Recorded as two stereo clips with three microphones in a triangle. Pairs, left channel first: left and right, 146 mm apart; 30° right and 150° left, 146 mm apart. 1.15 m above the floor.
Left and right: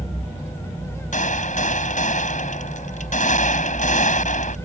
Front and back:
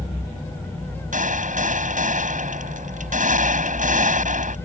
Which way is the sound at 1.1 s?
120° left.